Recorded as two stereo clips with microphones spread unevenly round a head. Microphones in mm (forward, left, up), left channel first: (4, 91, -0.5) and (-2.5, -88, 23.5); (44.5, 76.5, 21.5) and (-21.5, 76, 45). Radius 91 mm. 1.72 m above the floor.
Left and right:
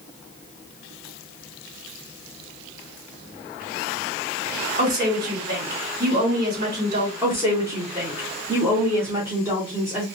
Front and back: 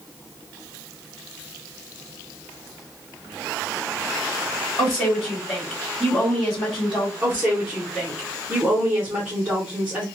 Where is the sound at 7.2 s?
150° right, 0.8 m.